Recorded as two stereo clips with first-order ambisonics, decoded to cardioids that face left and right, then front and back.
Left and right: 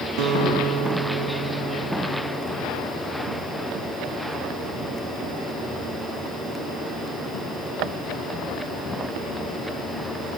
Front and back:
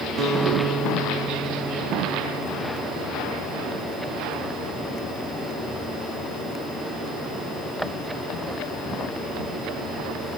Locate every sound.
0.2 s a guitar: 120° right, 1.1 m